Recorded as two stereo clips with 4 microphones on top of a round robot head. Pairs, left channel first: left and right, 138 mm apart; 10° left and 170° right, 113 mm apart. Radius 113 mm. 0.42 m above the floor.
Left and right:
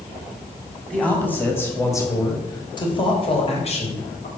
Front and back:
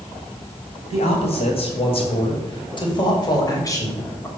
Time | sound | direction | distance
0.9 | a man speaking | 10° left | 3 m